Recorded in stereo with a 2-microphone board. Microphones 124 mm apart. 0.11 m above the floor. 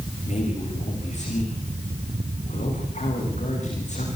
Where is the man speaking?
70° left (ahead or behind), 9.5 m.